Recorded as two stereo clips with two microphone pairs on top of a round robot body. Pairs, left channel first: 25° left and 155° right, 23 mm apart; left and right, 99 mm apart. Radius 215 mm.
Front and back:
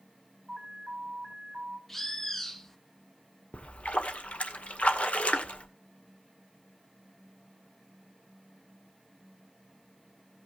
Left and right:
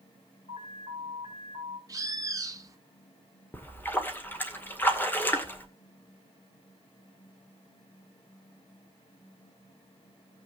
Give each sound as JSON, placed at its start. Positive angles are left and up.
{"t": 0.5, "sound": "an alarm", "azimuth_deg": 105, "distance_m": 4.5}
{"t": 1.9, "sound": "a bird", "azimuth_deg": -45, "distance_m": 1.3}
{"t": 3.5, "sound": "a splash", "azimuth_deg": 15, "distance_m": 2.0}